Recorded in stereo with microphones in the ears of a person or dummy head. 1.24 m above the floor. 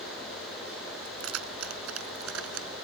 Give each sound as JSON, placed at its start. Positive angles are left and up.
{"t": 1.1, "sound": "keys jangling", "side_deg": -90}